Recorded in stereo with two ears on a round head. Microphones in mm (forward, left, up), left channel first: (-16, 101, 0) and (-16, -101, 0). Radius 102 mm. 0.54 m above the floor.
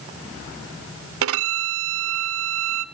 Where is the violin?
65° right (ahead or behind), 0.6 m.